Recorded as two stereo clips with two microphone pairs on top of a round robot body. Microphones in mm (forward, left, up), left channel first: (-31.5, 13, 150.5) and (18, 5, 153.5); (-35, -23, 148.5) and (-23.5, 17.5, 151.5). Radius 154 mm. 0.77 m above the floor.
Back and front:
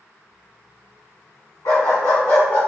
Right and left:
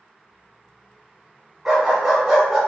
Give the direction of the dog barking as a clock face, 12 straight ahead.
7 o'clock.